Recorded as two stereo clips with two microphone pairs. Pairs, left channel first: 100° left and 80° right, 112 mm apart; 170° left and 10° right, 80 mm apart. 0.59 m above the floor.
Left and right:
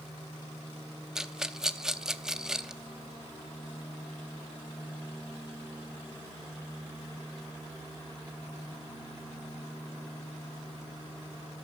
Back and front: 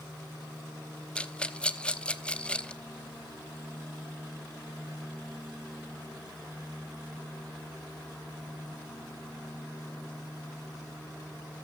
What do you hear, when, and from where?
1.1 s a rattle: 160° right, 0.8 m